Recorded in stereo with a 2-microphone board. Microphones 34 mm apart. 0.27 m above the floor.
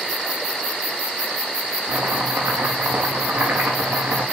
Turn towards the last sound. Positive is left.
turn(degrees=-85)